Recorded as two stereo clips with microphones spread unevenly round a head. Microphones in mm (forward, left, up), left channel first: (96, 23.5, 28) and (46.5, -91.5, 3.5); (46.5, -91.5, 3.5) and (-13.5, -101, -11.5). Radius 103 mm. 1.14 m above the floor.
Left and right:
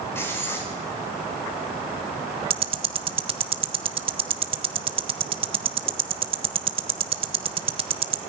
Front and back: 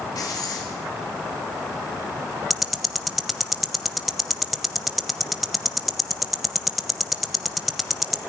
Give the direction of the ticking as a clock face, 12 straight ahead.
2 o'clock.